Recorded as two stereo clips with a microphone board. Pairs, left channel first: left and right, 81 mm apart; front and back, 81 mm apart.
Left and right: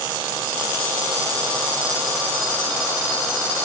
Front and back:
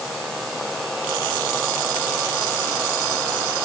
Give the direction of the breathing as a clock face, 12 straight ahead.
No breathing in this recording.